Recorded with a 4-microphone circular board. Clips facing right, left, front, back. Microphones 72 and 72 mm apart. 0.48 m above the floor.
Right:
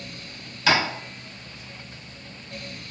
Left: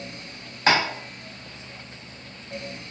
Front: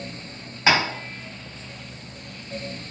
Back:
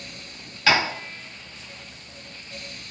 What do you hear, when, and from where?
0.7 s tapping: 55° left, 0.8 m